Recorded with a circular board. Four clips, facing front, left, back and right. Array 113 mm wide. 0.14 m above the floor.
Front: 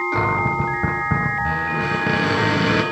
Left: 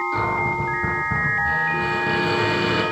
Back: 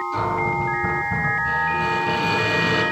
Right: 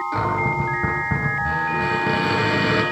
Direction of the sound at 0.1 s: 20° right.